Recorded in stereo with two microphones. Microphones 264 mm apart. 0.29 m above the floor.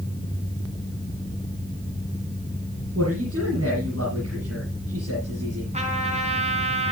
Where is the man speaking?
60° right (ahead or behind), 7 m.